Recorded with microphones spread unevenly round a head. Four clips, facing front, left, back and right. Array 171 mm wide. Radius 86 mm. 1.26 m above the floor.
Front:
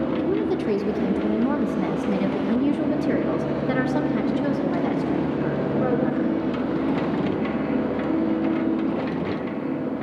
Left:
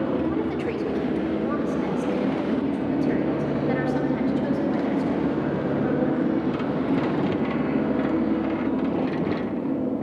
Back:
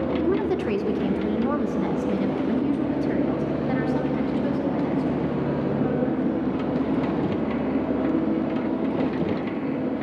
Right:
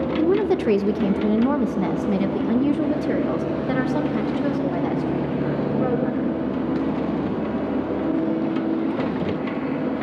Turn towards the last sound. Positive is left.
turn(degrees=-35)